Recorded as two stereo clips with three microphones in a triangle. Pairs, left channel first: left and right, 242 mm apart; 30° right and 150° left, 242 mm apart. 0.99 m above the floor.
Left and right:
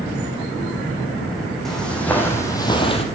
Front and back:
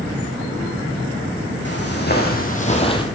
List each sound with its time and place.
1.6 s footsteps: straight ahead, 2.5 m; by 3.0 s 35° left, 1.4 m